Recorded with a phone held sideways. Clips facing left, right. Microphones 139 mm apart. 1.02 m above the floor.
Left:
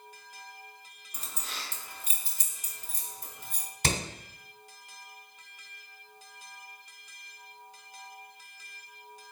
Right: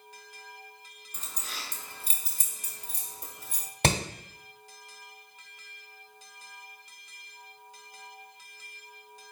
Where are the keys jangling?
15° left (ahead or behind), 0.8 m; by 3.7 s 80° right, 1.4 m.